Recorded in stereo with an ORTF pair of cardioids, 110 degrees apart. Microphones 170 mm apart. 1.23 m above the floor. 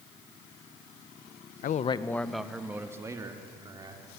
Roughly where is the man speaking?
Ahead left.